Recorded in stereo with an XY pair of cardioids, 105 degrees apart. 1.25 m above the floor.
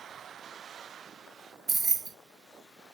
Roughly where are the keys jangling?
Ahead right.